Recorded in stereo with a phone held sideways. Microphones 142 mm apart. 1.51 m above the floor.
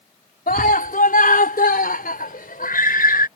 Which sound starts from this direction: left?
A scream, at 0.5 s.